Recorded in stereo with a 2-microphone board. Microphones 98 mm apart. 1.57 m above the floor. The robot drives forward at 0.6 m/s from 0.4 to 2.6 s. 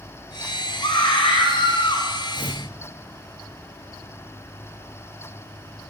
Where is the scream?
60° left (ahead or behind), 2 m; by 2.1 s 75° left (ahead or behind), 1.9 m.